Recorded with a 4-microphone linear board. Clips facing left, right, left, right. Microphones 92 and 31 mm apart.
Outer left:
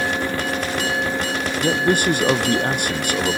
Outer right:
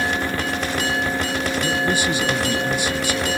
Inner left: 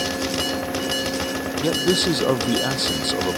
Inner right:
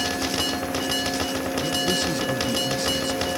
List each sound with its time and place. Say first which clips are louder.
1.6 s a man speaking: outer left 6 dB, inner left 6 dB; 50° left (ahead or behind)